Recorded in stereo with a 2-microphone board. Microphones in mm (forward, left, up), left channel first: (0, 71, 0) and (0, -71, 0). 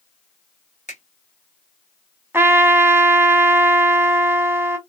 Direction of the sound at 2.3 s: 15° right (ahead or behind).